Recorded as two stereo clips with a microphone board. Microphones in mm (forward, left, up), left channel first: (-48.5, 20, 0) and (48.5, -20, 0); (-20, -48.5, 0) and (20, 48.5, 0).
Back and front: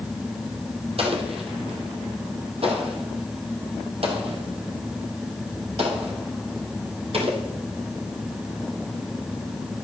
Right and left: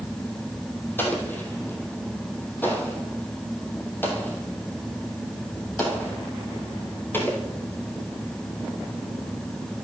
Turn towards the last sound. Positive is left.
turn(degrees=-40)